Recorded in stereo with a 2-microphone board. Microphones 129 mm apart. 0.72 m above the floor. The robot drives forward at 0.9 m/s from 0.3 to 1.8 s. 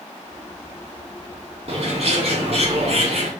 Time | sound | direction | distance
1.7 | a bird | 50° right (ahead or behind) | 2.0 m